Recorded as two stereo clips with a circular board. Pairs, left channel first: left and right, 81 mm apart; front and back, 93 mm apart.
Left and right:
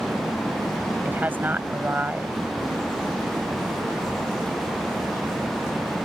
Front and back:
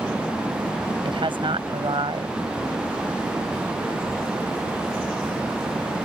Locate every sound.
1.0 s a woman speaking: 155° right